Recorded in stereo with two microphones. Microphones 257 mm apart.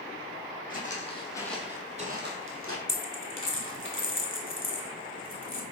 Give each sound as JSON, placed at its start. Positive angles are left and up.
{"t": 0.7, "sound": "footsteps", "side_deg": 35, "distance_m": 1.1}
{"t": 2.9, "sound": "a dropped coin", "side_deg": 55, "distance_m": 0.7}